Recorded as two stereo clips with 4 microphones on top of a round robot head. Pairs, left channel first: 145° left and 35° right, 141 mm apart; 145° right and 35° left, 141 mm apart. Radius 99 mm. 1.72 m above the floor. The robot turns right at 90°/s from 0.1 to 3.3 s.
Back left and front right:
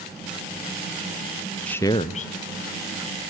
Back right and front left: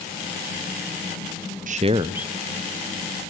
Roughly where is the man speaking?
Ahead left.